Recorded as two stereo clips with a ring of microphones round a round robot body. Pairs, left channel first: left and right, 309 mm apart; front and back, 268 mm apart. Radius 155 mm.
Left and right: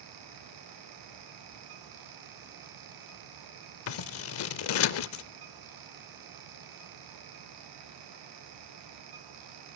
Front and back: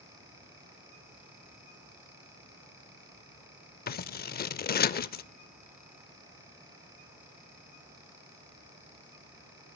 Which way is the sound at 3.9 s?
50° left.